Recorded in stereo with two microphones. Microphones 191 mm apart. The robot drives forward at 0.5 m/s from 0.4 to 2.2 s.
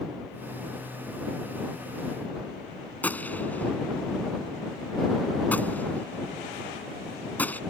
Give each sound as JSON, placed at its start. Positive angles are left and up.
{"t": 3.0, "sound": "a gunshot", "side_deg": 10}